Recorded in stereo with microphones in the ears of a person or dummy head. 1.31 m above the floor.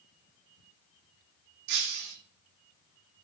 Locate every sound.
1.7 s breaking glass: 55° right (ahead or behind), 1.3 m